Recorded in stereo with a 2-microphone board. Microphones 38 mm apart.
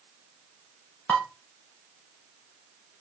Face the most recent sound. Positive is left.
turn(degrees=50)  # may be behind; listen again after turning